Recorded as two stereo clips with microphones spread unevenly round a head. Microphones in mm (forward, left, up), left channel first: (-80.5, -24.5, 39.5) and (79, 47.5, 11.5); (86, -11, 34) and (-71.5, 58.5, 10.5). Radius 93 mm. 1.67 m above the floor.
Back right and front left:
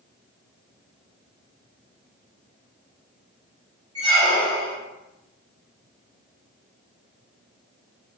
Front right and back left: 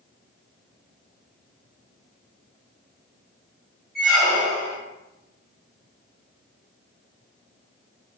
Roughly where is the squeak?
Ahead left.